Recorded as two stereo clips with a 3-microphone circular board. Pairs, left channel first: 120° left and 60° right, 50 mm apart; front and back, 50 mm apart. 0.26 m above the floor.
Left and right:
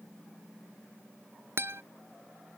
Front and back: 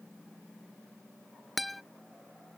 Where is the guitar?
90° right.